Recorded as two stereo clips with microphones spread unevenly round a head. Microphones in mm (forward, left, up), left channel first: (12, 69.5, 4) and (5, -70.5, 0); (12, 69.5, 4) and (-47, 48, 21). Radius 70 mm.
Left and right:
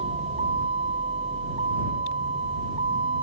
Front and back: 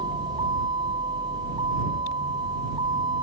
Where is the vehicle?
145° right.